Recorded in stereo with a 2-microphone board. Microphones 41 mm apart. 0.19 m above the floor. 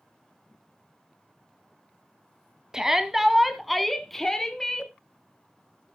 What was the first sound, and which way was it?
A shout, 15° right (ahead or behind).